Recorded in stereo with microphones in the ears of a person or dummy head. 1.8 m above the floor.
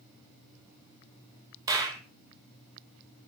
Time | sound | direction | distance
1.7 | a clap | 20° right (ahead or behind) | 1.5 m